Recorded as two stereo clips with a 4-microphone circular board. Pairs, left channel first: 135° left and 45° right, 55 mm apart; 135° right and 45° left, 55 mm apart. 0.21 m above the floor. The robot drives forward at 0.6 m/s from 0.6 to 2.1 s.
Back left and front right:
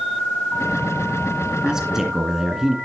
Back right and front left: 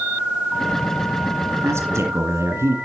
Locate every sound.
1.6 s a man speaking: 30° left, 2.5 m; by 2.8 s 35° left, 2 m